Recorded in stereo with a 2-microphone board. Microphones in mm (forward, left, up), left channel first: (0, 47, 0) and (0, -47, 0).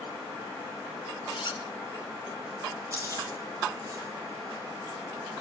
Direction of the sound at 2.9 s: 35° right (ahead or behind).